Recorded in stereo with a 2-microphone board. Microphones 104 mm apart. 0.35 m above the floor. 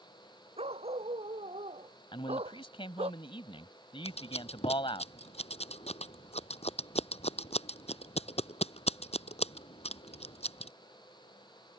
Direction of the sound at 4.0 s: 85° left.